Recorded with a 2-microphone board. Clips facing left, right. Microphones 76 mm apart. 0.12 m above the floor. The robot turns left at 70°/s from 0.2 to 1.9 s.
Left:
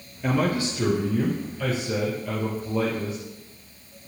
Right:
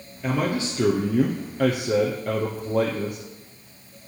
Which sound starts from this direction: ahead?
A man speaking, at 0.2 s.